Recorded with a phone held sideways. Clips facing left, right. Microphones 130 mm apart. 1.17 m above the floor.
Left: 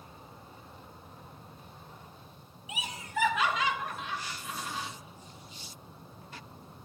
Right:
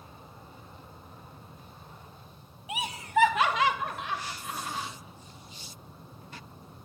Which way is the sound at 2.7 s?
60° right (ahead or behind).